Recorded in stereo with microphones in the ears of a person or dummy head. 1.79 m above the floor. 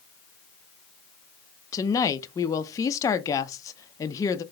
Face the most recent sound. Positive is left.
turn(degrees=25)  # may be behind; listen again after turning